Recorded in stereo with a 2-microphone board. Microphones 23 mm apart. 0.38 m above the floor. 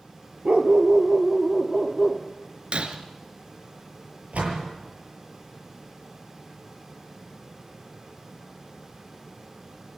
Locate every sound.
0.5 s a dog barking: 55° right (ahead or behind), 2 m; by 2.2 s 5° right (ahead or behind), 3.5 m
2.7 s breaking glass: 50° right (ahead or behind), 2.5 m
4.3 s a door slam: 70° right (ahead or behind), 7.5 m